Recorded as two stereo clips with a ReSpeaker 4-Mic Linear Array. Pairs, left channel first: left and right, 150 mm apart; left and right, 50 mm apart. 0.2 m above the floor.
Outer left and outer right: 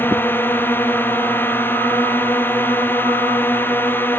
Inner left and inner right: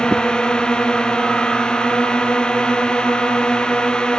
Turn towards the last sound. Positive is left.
turn(degrees=15)  # may be behind; listen again after turning